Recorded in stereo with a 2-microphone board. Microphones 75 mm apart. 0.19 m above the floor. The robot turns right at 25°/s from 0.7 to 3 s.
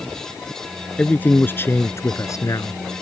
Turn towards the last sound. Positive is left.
turn(degrees=70)